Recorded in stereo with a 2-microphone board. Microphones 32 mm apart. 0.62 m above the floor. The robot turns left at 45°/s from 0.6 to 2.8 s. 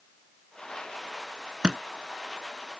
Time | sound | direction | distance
1.6 | a thud | 25° right (ahead or behind) | ?